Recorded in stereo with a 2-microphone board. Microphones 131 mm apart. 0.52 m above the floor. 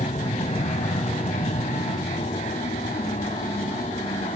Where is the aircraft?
60° left (ahead or behind); by 4.4 s 70° left (ahead or behind).